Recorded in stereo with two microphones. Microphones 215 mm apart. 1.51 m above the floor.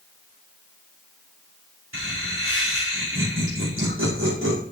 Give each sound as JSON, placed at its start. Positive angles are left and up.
{"t": 1.9, "sound": "laughter", "side_deg": -75, "distance_m": 5.0}